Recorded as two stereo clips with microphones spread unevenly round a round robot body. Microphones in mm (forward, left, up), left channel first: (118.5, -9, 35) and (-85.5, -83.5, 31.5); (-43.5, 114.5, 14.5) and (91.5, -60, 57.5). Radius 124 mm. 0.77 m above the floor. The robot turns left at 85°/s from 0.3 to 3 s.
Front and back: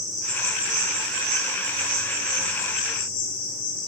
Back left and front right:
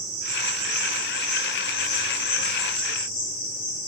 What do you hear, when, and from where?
0.0 s an insect: 50° right, 3.5 m; by 3.9 s 80° left, 3.5 m